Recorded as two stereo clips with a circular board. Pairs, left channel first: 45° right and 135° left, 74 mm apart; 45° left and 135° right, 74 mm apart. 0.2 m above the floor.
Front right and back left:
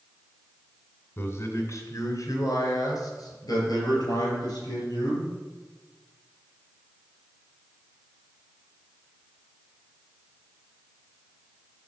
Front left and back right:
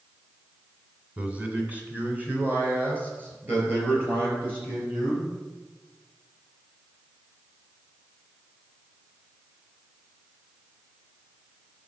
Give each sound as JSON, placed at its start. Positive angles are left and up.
{"t": 1.2, "sound": "a man speaking", "azimuth_deg": -75, "distance_m": 1.9}